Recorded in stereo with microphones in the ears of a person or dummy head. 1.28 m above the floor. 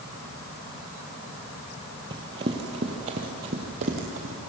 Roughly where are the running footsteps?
Right.